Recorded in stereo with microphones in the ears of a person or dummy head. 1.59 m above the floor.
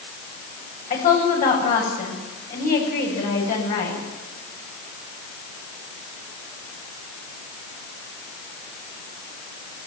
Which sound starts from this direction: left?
A woman speaking, at 0.9 s.